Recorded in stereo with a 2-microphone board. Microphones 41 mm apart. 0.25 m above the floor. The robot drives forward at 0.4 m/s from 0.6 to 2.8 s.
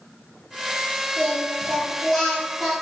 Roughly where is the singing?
Centre.